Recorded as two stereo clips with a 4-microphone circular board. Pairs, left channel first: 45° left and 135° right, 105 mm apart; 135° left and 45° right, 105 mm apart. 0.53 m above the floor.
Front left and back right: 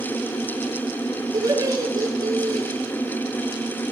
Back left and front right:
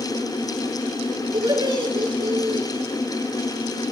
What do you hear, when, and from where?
1.3 s laughter: 80° right, 9 m